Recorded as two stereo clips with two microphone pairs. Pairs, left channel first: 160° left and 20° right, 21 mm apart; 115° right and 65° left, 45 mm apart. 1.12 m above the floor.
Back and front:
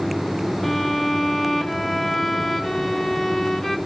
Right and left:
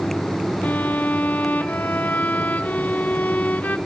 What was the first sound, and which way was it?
A violin, 130° right.